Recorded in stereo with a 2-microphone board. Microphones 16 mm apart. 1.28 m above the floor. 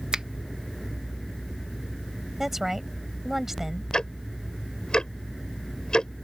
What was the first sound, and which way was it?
A finger snap, 80° right.